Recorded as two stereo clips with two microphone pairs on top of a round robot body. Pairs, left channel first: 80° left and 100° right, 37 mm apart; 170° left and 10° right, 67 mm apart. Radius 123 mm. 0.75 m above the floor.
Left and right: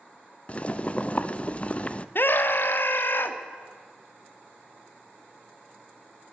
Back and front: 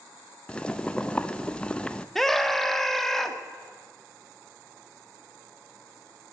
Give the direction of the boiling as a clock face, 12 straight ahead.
9 o'clock.